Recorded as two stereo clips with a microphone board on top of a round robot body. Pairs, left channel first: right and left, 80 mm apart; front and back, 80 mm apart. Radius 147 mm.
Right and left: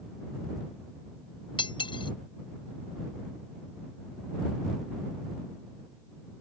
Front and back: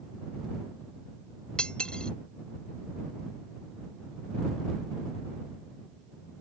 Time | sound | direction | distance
1.6 | cutlery clinking | 80° right | ?